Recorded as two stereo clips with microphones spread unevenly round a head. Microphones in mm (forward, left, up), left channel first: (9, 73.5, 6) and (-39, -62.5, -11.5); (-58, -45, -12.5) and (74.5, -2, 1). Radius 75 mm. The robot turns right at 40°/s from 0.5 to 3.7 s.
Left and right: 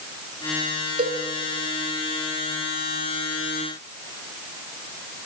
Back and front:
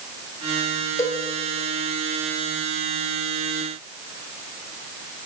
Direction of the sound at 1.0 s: 100° right.